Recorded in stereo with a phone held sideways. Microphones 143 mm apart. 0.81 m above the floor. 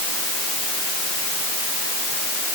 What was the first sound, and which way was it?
Only background noise.